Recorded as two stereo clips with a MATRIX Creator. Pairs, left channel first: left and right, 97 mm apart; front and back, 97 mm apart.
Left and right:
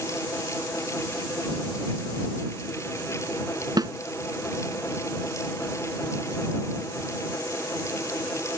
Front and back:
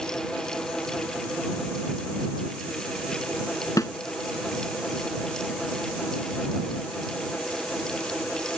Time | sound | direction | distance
3.8 | a snare drum | 50° right | ?